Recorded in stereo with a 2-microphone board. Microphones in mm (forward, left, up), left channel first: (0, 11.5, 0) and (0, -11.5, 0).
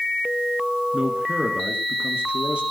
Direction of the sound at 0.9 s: 60° right (ahead or behind).